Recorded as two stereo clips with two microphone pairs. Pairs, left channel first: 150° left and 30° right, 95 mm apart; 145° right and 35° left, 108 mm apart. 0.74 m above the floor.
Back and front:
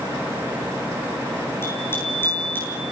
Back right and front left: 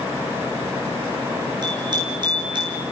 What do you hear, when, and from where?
1.6 s a bicycle bell: 85° left, 8.5 m; by 2.8 s 80° left, 9 m